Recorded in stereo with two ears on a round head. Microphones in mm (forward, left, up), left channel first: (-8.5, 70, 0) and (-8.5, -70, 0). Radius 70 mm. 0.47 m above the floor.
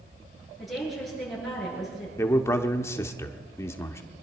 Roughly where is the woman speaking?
Centre.